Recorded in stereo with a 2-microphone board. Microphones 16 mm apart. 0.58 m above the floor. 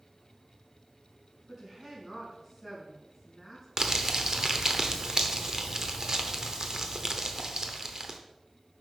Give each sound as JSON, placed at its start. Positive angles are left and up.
{"t": 1.5, "sound": "a woman speaking", "side_deg": -20, "distance_m": 5.0}
{"t": 3.8, "sound": "crumpling", "side_deg": -40, "distance_m": 1.0}